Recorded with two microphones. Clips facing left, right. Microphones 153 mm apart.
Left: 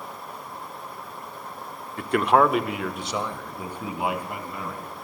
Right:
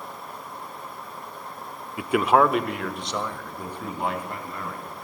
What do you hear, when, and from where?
2.0 s a man speaking: 10° right (ahead or behind), 0.8 m; by 4.9 s 10° left (ahead or behind), 4 m